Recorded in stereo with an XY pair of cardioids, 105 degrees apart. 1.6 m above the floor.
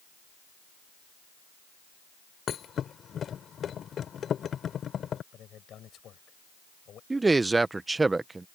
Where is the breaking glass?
No breaking glass in this recording.